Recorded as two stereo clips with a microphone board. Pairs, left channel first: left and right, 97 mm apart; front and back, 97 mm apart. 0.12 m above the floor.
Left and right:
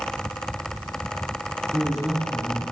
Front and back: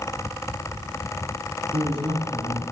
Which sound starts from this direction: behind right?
A man speaking, at 1.7 s.